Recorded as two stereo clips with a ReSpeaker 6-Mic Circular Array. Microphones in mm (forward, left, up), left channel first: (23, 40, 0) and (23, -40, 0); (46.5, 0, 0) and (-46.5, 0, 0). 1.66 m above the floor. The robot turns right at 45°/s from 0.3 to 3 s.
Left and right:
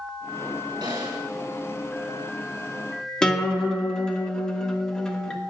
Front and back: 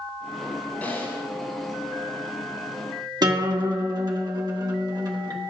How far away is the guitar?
About 1.2 m.